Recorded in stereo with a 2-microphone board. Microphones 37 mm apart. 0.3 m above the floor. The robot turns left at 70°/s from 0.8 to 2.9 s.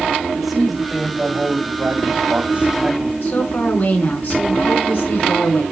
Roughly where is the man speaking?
Ahead.